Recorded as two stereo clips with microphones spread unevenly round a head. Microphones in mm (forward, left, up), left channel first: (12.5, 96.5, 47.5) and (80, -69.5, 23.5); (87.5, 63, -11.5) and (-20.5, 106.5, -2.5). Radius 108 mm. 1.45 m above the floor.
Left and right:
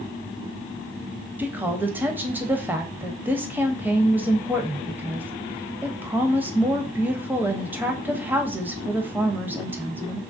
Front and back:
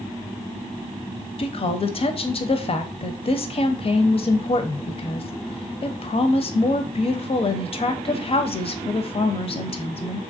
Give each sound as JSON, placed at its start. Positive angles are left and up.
{"t": 1.4, "sound": "a woman speaking", "azimuth_deg": 15, "distance_m": 0.6}